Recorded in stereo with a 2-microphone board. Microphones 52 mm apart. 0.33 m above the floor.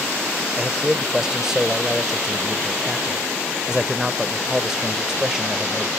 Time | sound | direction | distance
0.6 | a man speaking | 10° right (ahead or behind) | ?